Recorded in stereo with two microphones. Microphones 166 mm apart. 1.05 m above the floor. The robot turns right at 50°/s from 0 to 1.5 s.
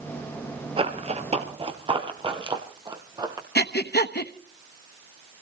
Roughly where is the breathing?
Left.